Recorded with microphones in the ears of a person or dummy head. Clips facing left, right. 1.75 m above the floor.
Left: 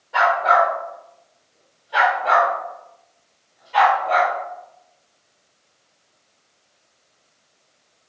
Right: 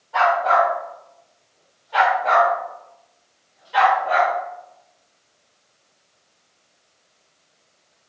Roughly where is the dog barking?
Left.